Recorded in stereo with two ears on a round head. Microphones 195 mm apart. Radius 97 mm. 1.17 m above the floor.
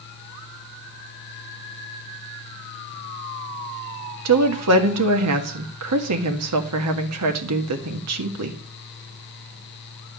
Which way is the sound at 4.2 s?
85° right.